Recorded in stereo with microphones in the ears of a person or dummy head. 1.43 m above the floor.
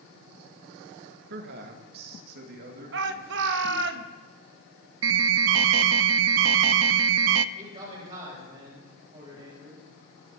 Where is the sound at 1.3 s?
55° right (ahead or behind), 1.8 m; by 3.9 s 50° right (ahead or behind), 5 m.